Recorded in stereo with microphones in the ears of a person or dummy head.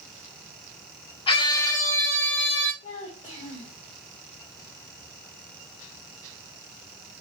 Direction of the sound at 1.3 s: 30° left (ahead or behind).